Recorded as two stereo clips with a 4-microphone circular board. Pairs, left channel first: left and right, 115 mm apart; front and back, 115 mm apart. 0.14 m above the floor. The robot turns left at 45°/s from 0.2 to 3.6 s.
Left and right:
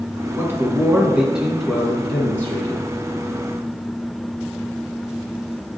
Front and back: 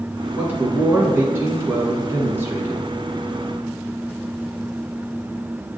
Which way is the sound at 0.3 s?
120° right.